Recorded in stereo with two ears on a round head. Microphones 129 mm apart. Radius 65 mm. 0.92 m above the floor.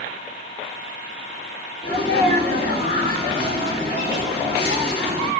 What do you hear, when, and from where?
1.8 s a sneeze: 35° left (ahead or behind), 1.9 m